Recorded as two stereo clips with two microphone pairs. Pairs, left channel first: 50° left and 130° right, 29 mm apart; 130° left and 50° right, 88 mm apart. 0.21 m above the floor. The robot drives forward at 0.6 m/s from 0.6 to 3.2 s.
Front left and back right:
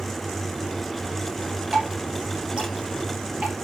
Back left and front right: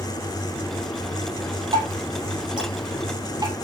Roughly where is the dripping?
Right.